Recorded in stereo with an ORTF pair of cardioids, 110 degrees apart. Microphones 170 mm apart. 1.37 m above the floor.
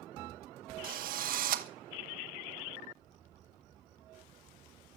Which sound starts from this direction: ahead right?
A drill, at 0.8 s.